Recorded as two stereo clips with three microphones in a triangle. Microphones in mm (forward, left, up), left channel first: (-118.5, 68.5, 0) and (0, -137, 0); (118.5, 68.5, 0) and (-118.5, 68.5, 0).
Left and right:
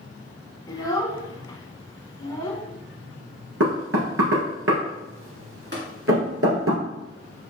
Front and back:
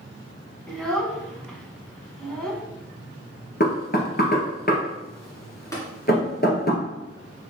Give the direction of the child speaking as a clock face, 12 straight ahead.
9 o'clock.